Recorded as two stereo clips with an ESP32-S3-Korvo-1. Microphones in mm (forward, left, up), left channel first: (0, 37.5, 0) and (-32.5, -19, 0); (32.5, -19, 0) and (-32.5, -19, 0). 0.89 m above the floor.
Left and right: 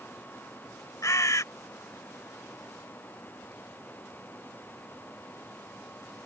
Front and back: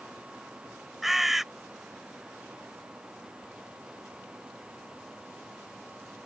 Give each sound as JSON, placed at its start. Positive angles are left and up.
{"t": 1.0, "sound": "a bird", "azimuth_deg": 95}